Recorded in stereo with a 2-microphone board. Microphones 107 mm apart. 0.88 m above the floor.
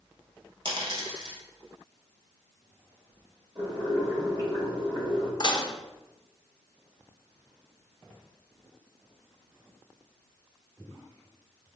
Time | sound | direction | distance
0.7 | a dropped coin | 45° right (ahead or behind) | 1.8 m
3.5 | boiling | 45° right (ahead or behind) | 1.9 m
5.4 | dishes clattering | 45° left (ahead or behind) | 0.5 m